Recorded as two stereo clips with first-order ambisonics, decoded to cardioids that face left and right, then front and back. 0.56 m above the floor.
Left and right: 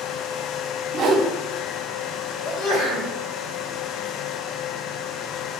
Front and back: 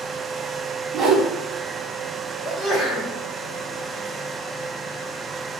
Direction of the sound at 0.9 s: 135° right.